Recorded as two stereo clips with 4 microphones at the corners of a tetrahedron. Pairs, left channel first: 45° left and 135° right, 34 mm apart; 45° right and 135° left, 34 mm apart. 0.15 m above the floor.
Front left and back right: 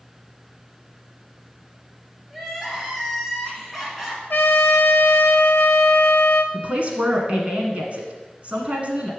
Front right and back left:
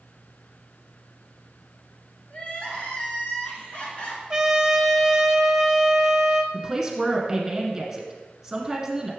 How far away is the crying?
About 1.3 m.